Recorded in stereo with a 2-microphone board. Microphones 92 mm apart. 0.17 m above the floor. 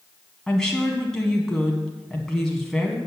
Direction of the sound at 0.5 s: 5° left (ahead or behind).